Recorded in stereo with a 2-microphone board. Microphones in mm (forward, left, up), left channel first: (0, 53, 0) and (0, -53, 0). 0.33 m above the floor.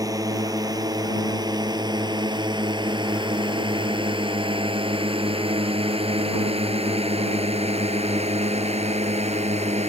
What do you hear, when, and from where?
0.0 s a drone: 30° right (ahead or behind); by 9.9 s 75° right (ahead or behind)